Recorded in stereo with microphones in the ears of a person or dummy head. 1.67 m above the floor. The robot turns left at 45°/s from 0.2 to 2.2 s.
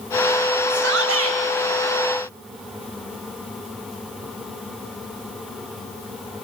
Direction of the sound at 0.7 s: 70° right.